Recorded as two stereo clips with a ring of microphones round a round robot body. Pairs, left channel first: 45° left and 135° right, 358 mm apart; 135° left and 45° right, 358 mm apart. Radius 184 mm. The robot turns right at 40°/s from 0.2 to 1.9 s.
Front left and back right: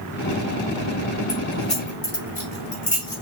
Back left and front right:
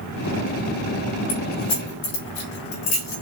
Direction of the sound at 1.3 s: 90° left.